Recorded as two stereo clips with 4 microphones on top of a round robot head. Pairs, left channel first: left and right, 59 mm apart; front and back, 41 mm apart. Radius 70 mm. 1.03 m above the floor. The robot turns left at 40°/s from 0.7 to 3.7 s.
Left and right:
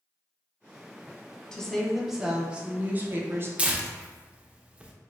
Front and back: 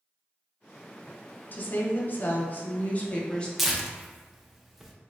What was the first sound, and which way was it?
A woman speaking, 20° left.